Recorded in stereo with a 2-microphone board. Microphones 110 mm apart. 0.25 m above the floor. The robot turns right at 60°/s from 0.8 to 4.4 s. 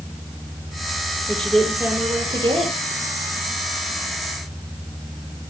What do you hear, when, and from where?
1.3 s a woman speaking: 165° left, 6.5 m; by 3.0 s 95° right, 6.5 m